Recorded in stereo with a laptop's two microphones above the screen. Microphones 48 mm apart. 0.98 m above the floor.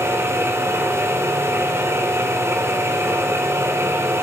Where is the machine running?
60° right (ahead or behind), 1.1 m.